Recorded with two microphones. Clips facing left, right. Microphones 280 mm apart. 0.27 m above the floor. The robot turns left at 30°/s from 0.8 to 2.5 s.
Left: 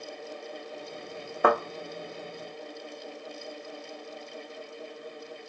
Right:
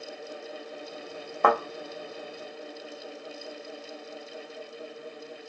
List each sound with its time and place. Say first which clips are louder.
1.4 s a thud: left 1 dB; 10° left (ahead or behind), 1.4 m; by 1.6 s 5° left (ahead or behind), 1.4 m